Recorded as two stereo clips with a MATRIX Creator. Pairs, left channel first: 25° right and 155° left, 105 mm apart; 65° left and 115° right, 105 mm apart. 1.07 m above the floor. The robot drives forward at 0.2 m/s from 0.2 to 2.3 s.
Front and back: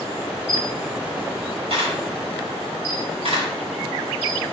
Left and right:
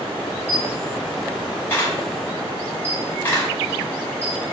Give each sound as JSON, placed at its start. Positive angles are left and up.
{"t": 0.5, "sound": "a camera shutter", "azimuth_deg": 140, "distance_m": 4.5}